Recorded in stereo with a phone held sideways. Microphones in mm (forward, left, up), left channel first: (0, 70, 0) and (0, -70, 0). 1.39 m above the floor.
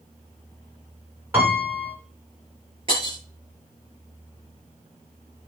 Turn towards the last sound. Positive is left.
turn(degrees=-40)  # may be behind; listen again after turning